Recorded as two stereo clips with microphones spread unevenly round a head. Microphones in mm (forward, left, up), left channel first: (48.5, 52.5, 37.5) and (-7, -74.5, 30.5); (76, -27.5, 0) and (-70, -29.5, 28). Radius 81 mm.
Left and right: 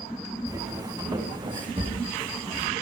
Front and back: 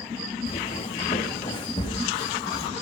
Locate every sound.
0.5 s footsteps: 50° right, 6 m; by 2.7 s 65° right, 6 m